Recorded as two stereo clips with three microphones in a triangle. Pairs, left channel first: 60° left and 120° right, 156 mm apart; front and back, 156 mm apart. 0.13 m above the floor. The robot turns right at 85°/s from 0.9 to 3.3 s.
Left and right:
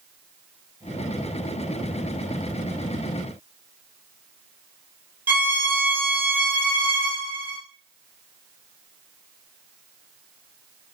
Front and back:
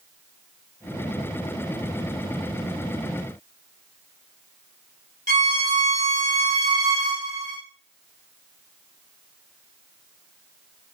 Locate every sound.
5.3 s a violin: 165° left, 0.6 m